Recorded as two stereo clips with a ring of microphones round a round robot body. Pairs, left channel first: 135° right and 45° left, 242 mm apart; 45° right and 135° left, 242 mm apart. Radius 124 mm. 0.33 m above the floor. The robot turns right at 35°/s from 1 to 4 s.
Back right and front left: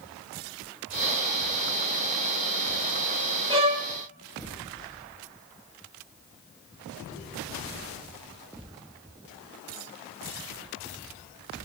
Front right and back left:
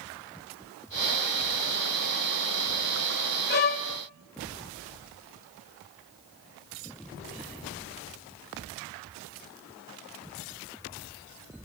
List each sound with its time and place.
3.5 s a violin: 20° right, 0.7 m; by 3.9 s 5° right, 0.7 m